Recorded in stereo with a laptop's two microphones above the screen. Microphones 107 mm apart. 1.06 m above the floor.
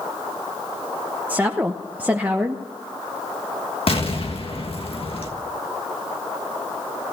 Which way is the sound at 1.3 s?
15° right (ahead or behind).